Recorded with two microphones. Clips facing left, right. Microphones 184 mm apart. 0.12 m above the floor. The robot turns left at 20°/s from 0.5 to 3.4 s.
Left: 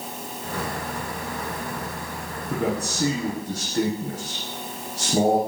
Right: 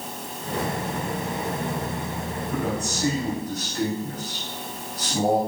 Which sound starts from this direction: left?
A man speaking, at 2.5 s.